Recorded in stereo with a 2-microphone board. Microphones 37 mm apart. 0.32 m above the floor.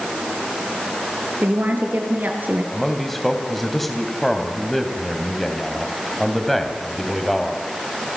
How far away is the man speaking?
About 2.5 m.